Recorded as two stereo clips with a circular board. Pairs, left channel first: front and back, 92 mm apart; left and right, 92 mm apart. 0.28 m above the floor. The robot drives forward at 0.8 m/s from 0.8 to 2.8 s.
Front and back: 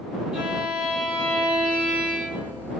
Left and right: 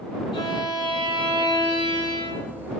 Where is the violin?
95° left, 7 m; by 2.6 s 105° left, 7.5 m.